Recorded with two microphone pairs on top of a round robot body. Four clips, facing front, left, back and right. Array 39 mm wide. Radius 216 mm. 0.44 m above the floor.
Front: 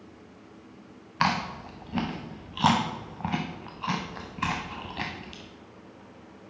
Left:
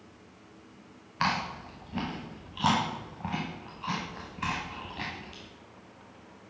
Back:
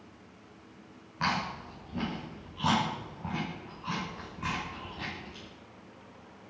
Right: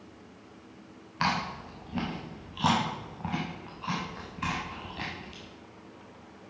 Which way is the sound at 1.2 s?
5° right.